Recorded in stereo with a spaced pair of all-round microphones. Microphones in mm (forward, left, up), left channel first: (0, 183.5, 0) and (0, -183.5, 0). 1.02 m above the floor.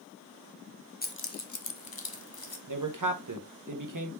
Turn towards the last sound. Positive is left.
turn(degrees=-55)  # may be behind; listen again after turning